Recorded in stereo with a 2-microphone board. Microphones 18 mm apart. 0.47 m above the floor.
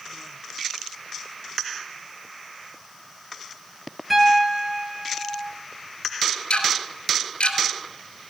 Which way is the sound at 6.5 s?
85° left.